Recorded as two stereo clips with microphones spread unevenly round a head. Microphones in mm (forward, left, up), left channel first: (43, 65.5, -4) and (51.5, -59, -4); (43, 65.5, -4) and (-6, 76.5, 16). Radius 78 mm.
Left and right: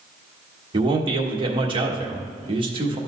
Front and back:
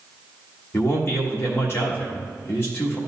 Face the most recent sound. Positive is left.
turn(degrees=-40)